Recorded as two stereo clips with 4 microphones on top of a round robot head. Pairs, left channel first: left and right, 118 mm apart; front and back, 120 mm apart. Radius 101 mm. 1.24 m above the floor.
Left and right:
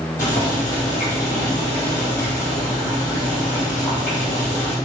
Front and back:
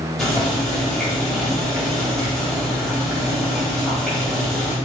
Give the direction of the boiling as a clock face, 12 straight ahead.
9 o'clock.